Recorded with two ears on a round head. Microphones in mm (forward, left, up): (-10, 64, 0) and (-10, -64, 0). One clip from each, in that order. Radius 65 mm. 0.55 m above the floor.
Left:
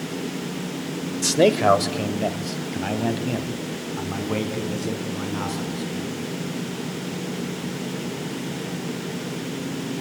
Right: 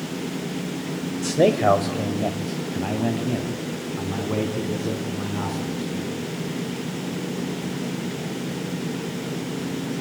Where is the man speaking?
70° left (ahead or behind), 1.6 m; by 6.2 s 50° left (ahead or behind), 5.5 m.